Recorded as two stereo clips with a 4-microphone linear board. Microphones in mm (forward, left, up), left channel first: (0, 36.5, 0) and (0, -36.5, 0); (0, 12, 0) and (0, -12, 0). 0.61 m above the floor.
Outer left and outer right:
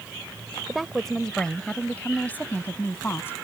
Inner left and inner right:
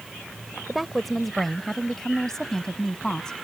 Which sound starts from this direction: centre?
A woman speaking, at 0.7 s.